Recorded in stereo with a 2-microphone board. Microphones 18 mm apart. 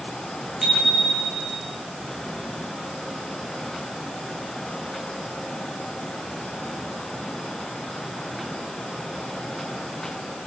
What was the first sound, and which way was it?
A bicycle bell, 15° right (ahead or behind).